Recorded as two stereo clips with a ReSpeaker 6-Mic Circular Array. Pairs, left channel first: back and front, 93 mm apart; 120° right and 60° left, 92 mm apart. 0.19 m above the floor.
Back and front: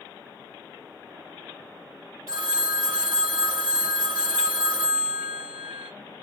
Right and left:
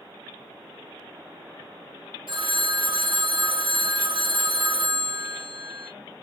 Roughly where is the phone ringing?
Ahead left.